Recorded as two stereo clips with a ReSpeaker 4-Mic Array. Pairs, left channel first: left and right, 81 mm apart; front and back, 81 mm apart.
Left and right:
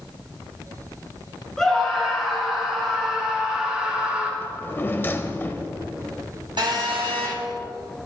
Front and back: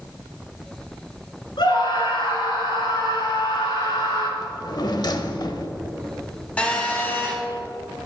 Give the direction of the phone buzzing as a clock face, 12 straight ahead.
2 o'clock.